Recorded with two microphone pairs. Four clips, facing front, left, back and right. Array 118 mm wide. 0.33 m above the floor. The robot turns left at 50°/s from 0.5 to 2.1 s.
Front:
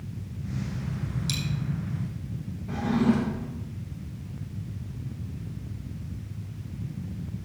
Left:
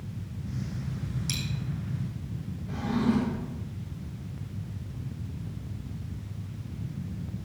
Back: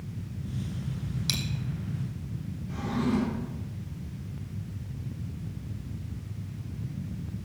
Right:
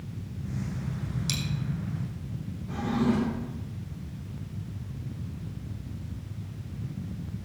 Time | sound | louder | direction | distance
1.3 | a dropped coin | right 2 dB, front 1 dB | 155° right | 1.7 m
2.7 | a drawer | even, front 5 dB | 10° right | 6 m